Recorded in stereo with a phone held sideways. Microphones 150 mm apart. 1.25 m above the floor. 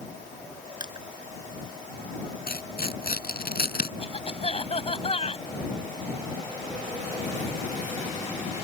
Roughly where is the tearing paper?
Left.